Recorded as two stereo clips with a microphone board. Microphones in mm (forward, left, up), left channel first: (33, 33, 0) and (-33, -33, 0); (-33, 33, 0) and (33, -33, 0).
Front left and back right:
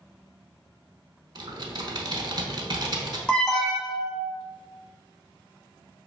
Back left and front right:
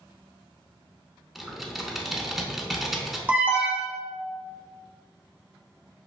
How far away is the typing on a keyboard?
About 0.8 m.